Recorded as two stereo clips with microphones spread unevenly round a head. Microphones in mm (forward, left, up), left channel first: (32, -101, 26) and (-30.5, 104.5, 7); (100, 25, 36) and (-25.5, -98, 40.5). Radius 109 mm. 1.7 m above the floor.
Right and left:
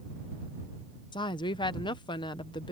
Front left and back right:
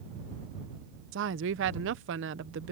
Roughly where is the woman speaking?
Behind right.